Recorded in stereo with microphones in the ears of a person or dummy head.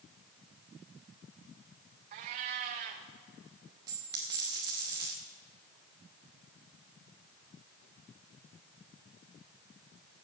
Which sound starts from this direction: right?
A cat meowing, at 2.1 s.